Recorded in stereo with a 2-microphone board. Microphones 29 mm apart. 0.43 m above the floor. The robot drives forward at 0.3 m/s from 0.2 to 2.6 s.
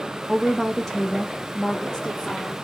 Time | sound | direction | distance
0.3 | a woman speaking | 10° left (ahead or behind) | 0.7 m